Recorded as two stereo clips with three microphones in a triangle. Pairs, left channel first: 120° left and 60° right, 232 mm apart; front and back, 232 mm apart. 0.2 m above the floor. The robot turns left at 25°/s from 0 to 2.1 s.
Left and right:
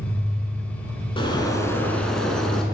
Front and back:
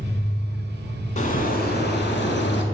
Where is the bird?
55° left, 0.8 m; by 2.6 s 35° left, 0.8 m.